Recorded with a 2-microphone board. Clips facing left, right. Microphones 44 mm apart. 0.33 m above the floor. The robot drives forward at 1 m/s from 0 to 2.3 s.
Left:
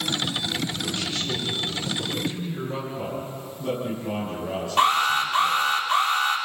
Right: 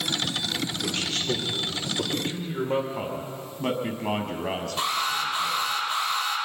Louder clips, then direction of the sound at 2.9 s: Left 1 dB; 80° right.